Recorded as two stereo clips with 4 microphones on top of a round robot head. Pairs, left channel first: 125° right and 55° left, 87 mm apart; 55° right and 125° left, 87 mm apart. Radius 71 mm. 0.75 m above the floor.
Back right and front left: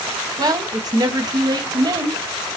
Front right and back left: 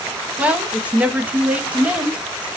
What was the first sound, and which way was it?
A woman speaking, 55° left.